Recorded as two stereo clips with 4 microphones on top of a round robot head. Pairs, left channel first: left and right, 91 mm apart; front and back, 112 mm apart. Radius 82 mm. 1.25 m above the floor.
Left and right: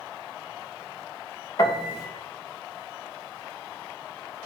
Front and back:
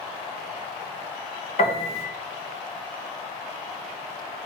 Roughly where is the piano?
Ahead left.